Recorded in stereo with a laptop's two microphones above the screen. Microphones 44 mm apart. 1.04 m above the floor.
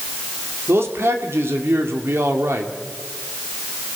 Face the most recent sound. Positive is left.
turn(degrees=-80)